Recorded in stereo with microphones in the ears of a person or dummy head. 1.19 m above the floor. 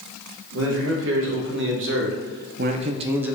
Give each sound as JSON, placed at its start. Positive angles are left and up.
{"t": 0.5, "sound": "a man speaking", "side_deg": -70, "distance_m": 1.9}